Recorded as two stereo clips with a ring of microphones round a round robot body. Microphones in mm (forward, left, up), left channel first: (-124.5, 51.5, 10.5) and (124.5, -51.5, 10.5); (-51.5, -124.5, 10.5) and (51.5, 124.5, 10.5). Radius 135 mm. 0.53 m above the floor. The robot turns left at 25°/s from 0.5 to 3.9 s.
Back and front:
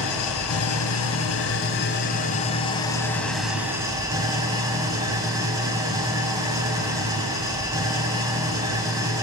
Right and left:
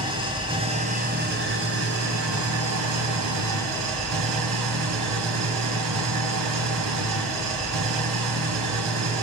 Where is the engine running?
140° left, 2.5 m; by 9.2 s 55° left, 2.5 m.